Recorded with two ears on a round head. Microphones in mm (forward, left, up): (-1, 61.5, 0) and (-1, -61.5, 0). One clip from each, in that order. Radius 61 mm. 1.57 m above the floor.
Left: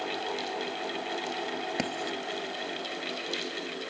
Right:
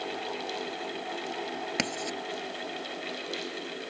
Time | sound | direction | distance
1.8 | writing | 45° right (ahead or behind) | ?